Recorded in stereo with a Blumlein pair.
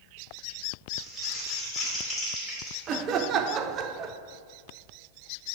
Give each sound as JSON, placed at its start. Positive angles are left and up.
{"t": 1.0, "sound": "crumpling", "azimuth_deg": 5, "distance_m": 3.0}
{"t": 2.9, "sound": "laughter", "azimuth_deg": -30, "distance_m": 0.6}